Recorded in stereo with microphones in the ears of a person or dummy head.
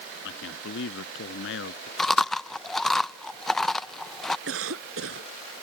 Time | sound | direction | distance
0.2 | a man speaking | 80° left | ?
2.0 | chewing | 5° left (ahead or behind) | ?
4.5 | a cough | 85° right | ?